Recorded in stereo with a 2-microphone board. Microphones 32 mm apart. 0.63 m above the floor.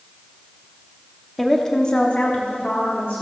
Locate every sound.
1.4 s a woman speaking: 5° left (ahead or behind), 0.9 m; by 3.2 s 70° left (ahead or behind), 1.6 m